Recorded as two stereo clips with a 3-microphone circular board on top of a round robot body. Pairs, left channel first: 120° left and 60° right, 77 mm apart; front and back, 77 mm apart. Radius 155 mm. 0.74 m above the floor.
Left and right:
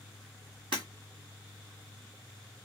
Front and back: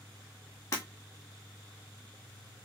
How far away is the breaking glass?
About 1.5 m.